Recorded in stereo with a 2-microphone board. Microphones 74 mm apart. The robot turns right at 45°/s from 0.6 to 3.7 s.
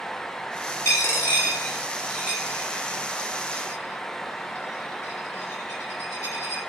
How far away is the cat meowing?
No cat meowing in this recording.